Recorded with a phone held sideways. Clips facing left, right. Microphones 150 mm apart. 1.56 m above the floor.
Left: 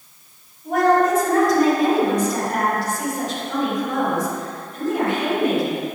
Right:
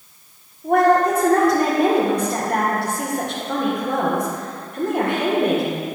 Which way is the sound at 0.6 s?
60° right (ahead or behind).